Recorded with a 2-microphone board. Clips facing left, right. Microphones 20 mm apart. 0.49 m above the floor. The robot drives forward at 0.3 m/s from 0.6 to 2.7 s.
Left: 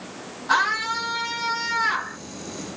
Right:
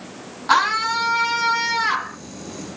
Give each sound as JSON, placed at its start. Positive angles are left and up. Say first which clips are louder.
{"t": 0.5, "sound": "a scream", "louder": "right 4 dB", "side_deg": -45, "distance_m": 5.5}